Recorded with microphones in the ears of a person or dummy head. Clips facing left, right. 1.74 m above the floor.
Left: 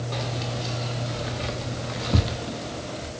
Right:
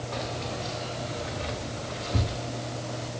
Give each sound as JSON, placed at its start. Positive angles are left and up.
{"t": 0.1, "sound": "keys jangling", "side_deg": 50, "distance_m": 3.0}